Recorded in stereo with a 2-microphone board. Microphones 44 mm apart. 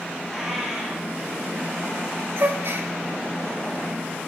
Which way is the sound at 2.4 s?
65° right (ahead or behind).